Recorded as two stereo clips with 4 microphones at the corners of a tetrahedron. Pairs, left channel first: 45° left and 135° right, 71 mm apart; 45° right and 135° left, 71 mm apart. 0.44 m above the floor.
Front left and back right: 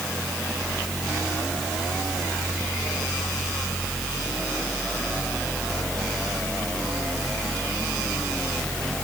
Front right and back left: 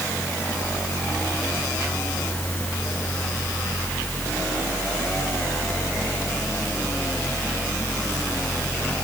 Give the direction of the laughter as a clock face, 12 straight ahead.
I don't hear laughter.